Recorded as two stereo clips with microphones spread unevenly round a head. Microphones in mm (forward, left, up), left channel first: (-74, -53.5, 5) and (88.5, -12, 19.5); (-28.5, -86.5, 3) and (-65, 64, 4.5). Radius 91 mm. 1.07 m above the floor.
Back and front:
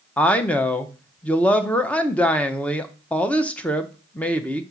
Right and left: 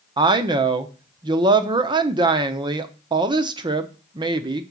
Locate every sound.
0.2 s a woman speaking: 130° left, 0.7 m